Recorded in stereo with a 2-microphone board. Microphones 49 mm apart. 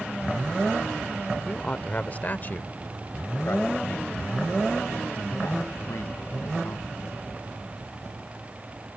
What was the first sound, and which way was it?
A man speaking, 20° left (ahead or behind).